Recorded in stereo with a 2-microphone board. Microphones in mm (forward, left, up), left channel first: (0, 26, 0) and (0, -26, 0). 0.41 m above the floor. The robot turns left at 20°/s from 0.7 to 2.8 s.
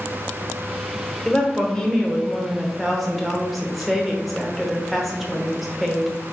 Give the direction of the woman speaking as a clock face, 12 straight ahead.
11 o'clock.